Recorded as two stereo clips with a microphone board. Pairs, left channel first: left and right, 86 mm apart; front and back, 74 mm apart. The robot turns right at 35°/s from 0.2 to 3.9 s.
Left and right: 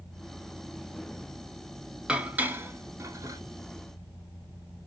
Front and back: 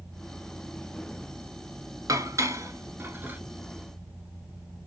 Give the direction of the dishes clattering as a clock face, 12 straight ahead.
6 o'clock.